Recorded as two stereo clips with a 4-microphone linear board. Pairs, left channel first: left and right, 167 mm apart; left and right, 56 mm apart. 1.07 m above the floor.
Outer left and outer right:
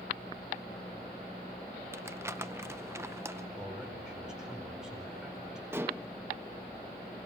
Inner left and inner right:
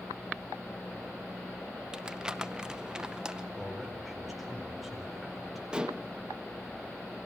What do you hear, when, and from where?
1.9 s crumpling: 15° right (ahead or behind), 0.7 m
3.6 s a man speaking: 5° right (ahead or behind), 4.5 m
5.7 s dishes clattering: 15° right (ahead or behind), 0.7 m